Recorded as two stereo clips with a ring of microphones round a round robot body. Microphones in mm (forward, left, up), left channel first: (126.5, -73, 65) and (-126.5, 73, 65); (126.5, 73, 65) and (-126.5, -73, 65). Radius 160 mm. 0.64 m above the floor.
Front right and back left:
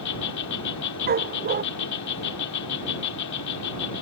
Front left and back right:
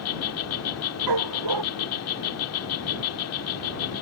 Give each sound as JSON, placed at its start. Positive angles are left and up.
{"t": 0.0, "sound": "an insect", "azimuth_deg": -5}
{"t": 1.1, "sound": "a dog barking", "azimuth_deg": -150}